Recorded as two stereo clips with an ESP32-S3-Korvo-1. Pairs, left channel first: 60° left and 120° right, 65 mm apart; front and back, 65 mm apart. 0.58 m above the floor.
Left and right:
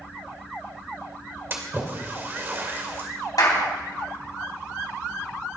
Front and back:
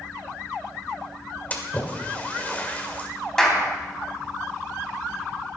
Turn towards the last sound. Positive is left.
turn(degrees=80)